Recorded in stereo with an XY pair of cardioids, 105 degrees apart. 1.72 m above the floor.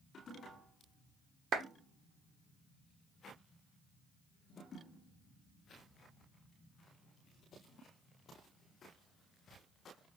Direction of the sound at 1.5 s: 60° right.